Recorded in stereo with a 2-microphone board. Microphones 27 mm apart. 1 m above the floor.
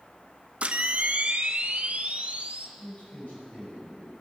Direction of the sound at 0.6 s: 45° right (ahead or behind).